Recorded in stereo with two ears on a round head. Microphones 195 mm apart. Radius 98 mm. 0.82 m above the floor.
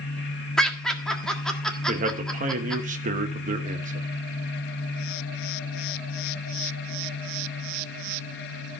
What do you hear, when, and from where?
0.6 s laughter: 5° left (ahead or behind), 1.6 m
1.9 s a man speaking: 35° right (ahead or behind), 1.2 m